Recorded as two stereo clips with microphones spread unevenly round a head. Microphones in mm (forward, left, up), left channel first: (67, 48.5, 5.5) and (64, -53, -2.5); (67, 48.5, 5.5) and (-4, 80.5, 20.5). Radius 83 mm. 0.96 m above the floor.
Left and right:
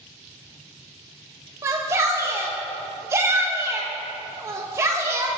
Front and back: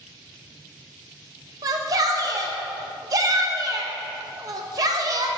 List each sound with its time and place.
1.6 s a shout: 150° right, 1.2 m